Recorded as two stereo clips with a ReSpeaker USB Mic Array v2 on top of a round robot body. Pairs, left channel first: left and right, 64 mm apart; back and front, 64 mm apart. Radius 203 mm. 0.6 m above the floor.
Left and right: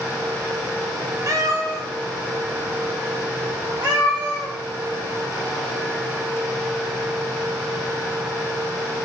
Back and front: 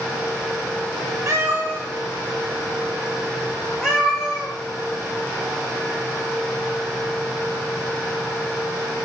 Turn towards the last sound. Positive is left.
turn(degrees=-90)